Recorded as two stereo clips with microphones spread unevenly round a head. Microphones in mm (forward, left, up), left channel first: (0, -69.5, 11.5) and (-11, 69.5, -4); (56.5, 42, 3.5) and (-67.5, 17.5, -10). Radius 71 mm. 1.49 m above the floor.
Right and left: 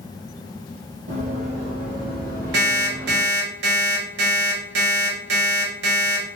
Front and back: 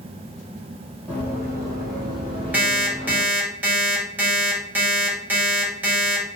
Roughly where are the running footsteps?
Left.